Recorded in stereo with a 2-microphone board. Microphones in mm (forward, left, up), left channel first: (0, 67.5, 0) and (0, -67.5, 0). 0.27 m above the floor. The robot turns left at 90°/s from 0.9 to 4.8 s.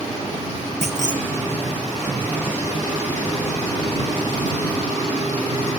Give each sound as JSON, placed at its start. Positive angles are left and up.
{"t": 0.8, "sound": "a clunk", "side_deg": -55}